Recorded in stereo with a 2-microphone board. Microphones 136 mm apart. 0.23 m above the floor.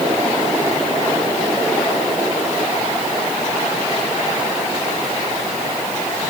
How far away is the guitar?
No guitar in this recording.